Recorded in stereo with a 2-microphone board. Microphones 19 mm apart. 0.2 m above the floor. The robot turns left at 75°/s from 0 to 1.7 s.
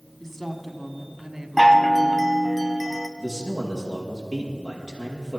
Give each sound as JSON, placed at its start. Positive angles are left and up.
{"t": 0.2, "sound": "a woman speaking", "azimuth_deg": 30, "distance_m": 1.5}
{"t": 1.6, "sound": "a chime", "side_deg": 5, "distance_m": 0.9}
{"t": 3.2, "sound": "a man speaking", "side_deg": 0, "distance_m": 5.5}